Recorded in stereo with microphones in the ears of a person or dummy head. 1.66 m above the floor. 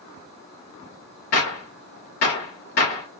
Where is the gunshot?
50° left (ahead or behind), 1.2 m.